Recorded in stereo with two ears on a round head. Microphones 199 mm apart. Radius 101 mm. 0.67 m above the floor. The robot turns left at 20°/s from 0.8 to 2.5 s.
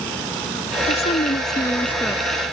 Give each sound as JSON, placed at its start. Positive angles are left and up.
{"t": 0.9, "sound": "a woman speaking", "side_deg": 30}